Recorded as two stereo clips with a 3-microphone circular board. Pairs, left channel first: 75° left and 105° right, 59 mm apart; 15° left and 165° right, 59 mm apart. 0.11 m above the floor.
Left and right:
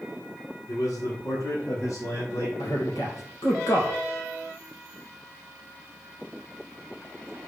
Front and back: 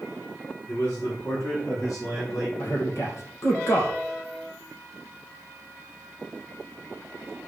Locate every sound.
0.7 s a man speaking: 60° left, 5.5 m; by 2.5 s 40° left, 5.5 m
2.6 s a man speaking: 50° left, 3 m